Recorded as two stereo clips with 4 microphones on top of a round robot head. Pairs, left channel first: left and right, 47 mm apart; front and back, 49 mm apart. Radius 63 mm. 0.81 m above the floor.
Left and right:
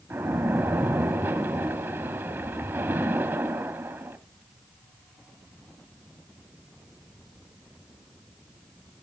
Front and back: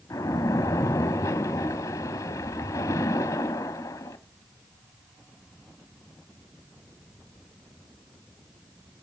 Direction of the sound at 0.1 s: 35° right.